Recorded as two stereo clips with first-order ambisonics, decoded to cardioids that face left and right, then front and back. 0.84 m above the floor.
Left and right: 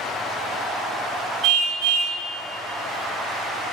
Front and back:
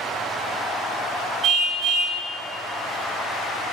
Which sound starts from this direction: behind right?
A car horn, at 1.4 s.